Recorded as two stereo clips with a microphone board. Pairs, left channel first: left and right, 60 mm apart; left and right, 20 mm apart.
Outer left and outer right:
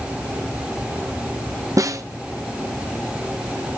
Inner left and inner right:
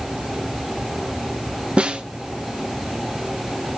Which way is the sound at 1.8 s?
60° right (ahead or behind).